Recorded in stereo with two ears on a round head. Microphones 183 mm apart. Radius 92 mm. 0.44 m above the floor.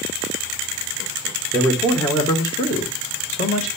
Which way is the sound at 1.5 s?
5° left (ahead or behind).